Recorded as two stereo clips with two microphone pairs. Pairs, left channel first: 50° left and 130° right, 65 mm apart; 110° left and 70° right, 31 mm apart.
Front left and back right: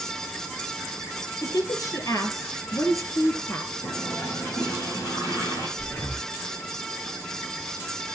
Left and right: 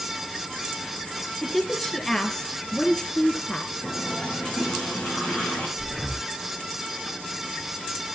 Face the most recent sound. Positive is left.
turn(degrees=25)